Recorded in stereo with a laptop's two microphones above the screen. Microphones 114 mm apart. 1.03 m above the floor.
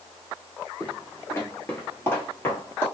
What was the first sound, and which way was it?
Footsteps, 25° left (ahead or behind).